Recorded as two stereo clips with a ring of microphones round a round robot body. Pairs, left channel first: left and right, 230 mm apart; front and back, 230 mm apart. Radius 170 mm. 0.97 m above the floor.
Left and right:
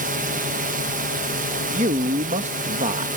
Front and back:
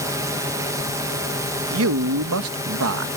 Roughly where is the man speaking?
Behind right.